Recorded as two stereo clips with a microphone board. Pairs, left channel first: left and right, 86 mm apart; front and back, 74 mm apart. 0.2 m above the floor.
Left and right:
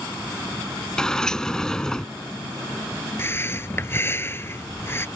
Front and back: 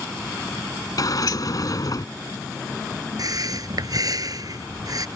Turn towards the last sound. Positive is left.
turn(degrees=150)